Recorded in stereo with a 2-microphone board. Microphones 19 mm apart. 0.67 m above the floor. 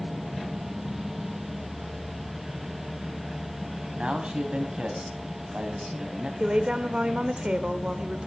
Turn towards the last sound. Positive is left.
turn(degrees=-65)  # may be behind; listen again after turning